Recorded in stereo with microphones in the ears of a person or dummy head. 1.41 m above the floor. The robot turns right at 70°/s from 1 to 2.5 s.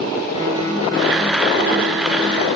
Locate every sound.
0.3 s a guitar: 135° left, 3 m; by 2.5 s 120° right, 3 m